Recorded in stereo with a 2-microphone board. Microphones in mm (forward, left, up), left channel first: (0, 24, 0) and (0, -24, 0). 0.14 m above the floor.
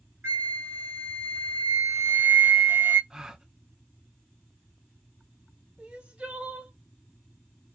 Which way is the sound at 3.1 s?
15° right (ahead or behind).